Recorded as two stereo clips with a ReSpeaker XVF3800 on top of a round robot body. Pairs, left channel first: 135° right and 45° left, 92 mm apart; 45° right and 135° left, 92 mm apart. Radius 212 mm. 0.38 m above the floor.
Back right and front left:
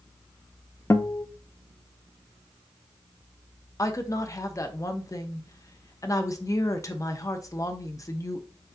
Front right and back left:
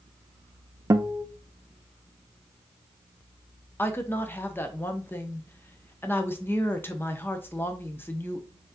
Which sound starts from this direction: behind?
A guitar, at 0.9 s.